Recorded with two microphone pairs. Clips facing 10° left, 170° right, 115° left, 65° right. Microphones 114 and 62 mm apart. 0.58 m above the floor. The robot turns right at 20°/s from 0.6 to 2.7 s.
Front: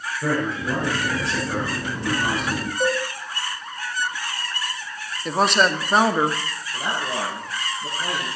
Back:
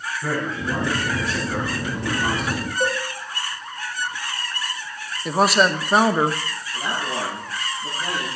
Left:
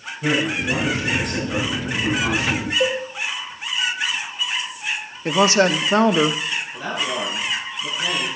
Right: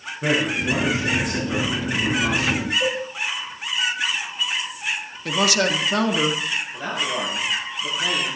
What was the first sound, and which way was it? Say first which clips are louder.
A man speaking: front 3 dB, even; 5° right.